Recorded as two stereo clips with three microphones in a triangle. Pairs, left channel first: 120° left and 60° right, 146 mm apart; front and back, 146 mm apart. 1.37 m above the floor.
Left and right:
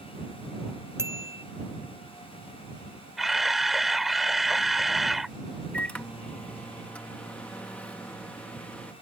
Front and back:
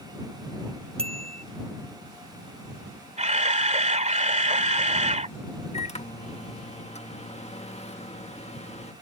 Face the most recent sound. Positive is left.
turn(degrees=40)